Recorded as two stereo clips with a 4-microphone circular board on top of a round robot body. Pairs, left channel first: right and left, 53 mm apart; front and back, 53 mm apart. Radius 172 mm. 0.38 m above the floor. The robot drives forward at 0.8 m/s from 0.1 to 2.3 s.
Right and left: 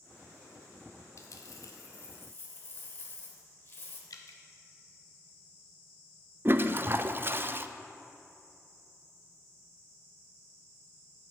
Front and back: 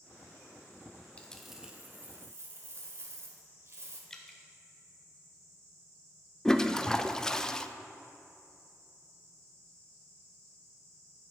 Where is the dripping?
85° right, 0.5 m.